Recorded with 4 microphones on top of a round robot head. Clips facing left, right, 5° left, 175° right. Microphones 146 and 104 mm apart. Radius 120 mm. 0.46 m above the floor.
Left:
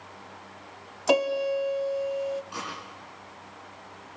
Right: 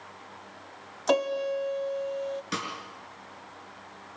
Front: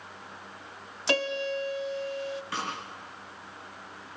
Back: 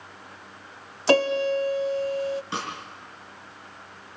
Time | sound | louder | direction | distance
1.1 | a piano | left 2 dB, back 8 dB | 165° left | 0.6 m
2.5 | a snare drum | right 3 dB, back 2 dB | 105° right | 5.5 m